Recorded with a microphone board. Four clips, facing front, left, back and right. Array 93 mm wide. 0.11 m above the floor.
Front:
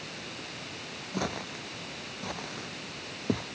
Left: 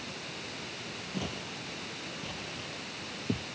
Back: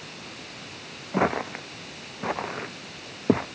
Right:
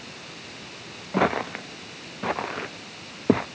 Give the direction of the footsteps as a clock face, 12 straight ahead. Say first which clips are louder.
Right 17 dB, back 10 dB; 4 o'clock.